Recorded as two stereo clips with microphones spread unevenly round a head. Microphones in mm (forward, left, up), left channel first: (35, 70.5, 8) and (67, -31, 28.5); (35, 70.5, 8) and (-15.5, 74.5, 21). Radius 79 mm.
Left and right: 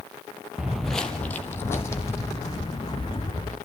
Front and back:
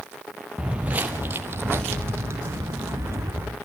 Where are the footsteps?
140° right, 1.1 m; by 3.5 s 175° left, 3.5 m.